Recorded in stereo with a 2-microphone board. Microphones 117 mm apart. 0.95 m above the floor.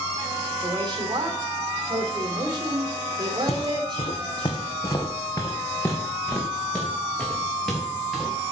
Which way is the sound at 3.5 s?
65° left (ahead or behind).